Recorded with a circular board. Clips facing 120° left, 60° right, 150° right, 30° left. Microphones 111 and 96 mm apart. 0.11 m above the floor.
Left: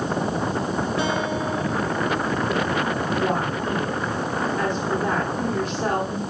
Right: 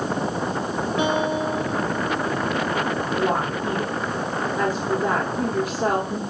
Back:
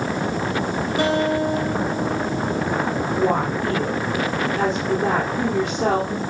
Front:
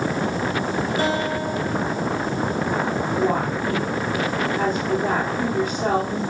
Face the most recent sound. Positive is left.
turn(degrees=-140)